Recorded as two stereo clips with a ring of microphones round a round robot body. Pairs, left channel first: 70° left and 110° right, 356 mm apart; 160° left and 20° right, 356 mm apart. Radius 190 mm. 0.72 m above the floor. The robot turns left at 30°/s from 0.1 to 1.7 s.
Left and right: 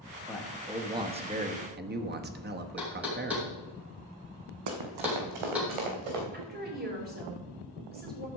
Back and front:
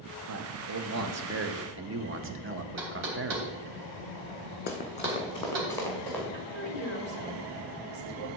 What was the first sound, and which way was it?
A man speaking, 20° right.